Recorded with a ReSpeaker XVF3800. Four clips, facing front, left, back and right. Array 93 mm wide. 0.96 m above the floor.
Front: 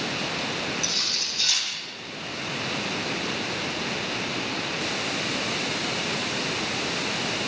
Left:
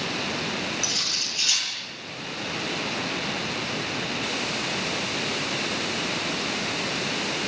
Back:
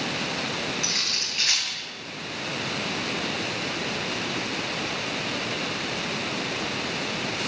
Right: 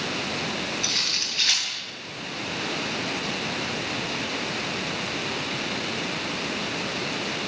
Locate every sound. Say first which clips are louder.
0.8 s cutlery clinking: right 1 dB, back 1 dB; 140° right, 9 m